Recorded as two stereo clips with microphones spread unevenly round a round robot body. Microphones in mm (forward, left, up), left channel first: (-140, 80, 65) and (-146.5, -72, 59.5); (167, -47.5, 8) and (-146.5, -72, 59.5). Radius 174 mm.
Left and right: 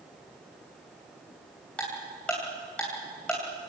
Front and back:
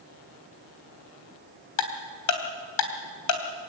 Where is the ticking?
5° left, 3 m.